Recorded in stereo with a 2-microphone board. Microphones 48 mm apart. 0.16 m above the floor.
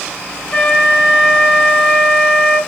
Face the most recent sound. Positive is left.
turn(degrees=10)  # may be behind; listen again after turning